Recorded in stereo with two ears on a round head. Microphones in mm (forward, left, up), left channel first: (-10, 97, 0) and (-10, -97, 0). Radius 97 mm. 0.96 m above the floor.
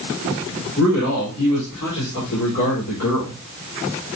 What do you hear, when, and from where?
0.8 s a man speaking: 75° left (ahead or behind), 2.5 m